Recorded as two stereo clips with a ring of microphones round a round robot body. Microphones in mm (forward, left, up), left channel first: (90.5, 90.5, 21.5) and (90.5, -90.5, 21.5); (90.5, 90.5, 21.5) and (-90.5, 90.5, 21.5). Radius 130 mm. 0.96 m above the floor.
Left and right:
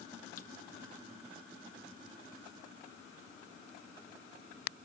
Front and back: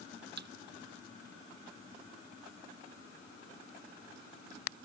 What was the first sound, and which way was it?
A thud, 150° left.